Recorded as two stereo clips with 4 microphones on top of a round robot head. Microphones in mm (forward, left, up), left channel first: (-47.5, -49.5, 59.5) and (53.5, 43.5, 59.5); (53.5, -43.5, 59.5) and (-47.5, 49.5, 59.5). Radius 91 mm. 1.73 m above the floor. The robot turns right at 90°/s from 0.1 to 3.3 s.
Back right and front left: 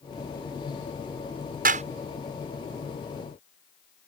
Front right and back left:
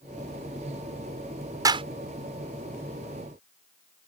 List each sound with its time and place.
1.6 s a clap: 70° left; by 1.9 s 90° left